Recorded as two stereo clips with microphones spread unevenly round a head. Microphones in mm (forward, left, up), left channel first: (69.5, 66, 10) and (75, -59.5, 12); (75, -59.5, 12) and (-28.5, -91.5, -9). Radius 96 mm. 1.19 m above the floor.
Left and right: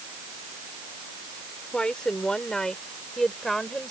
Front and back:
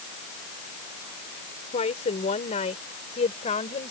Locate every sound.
1.7 s a woman speaking: 10° left; by 3.9 s 5° left